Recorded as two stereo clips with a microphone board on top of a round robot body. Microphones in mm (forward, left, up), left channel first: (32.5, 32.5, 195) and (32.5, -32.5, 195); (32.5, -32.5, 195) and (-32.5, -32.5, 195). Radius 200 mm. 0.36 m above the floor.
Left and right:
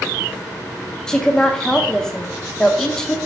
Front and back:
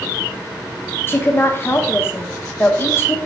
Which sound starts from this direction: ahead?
A woman speaking, at 1.1 s.